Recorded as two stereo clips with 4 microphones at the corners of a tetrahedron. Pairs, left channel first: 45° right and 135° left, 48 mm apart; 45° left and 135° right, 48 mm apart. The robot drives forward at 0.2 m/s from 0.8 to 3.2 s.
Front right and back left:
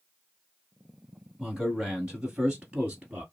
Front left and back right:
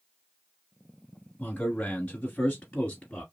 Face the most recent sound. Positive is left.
turn(degrees=105)